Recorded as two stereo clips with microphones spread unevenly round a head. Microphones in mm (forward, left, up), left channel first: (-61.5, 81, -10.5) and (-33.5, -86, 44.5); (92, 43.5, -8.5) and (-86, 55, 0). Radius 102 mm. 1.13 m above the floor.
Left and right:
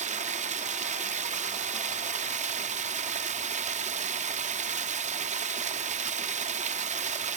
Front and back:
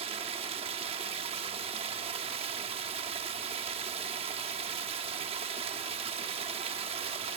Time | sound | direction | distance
0.0 | running water | 120° right | 1.3 m